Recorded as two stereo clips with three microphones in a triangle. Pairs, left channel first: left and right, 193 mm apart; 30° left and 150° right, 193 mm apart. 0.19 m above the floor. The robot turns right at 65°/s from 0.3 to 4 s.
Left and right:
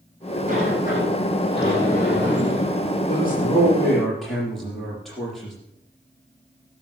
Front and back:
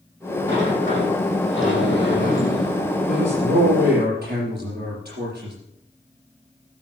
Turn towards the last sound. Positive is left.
turn(degrees=180)